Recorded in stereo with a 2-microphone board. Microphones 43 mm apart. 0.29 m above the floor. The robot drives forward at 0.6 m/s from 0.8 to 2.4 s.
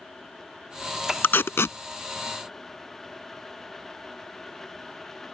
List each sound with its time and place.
1.2 s tape being pulled: 55° left (ahead or behind); by 1.8 s 85° left